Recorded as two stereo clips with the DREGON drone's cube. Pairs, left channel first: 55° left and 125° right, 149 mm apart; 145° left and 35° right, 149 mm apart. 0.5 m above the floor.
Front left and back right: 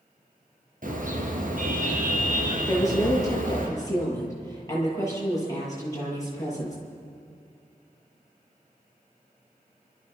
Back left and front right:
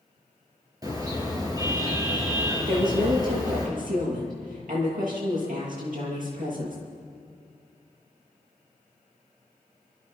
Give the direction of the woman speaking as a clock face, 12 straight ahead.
12 o'clock.